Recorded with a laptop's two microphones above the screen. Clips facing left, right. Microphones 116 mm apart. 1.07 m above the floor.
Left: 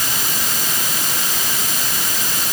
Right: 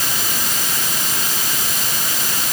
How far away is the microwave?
I don't hear a microwave.